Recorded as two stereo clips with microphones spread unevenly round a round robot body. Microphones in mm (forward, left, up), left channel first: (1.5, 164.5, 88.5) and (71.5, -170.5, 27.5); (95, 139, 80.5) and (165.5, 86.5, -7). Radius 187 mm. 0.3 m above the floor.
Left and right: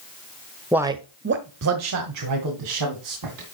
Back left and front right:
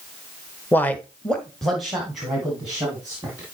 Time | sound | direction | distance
0.7 | a man speaking | 10° right | 1.1 m